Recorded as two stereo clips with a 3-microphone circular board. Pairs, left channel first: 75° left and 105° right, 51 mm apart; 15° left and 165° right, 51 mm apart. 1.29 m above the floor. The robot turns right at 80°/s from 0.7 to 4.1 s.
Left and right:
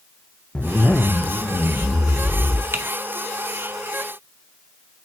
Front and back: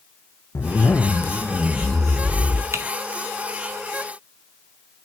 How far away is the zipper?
About 0.5 m.